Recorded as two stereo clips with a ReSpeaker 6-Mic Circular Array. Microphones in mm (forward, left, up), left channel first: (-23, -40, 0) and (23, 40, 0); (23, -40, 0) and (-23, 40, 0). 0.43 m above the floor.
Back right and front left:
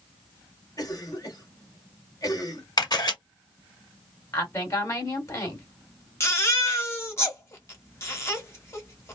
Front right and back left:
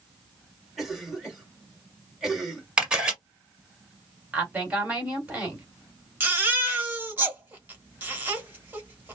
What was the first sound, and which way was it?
A cough, 155° right.